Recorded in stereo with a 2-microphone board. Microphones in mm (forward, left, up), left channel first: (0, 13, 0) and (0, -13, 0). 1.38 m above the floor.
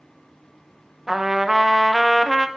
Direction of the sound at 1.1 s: 10° right (ahead or behind).